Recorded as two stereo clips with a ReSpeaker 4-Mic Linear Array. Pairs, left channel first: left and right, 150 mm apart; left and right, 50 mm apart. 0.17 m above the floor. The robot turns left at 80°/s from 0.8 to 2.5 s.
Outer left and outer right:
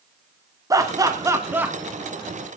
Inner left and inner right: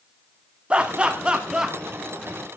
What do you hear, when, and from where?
0.7 s laughter: 25° right (ahead or behind), 1.2 m; by 1.8 s 10° right (ahead or behind), 1.2 m